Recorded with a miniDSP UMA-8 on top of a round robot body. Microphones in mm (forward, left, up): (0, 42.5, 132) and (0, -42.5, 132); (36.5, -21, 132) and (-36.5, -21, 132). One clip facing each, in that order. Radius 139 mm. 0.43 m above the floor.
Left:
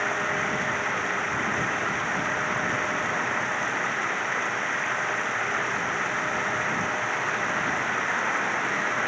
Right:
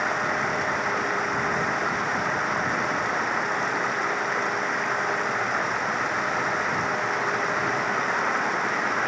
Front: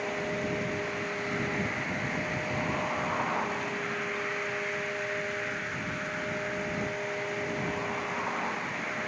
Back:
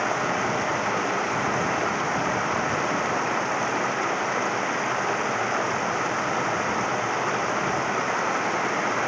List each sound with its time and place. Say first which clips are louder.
0.0 s running water: right 2 dB, back 8 dB; 165° right